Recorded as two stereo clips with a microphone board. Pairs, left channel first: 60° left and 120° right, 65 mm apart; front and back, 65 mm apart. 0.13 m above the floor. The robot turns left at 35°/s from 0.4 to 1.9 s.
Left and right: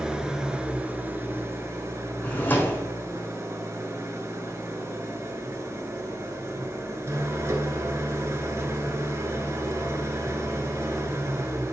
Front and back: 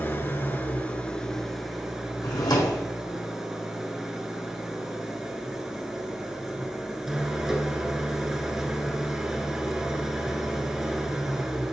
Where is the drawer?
Straight ahead, 2 m.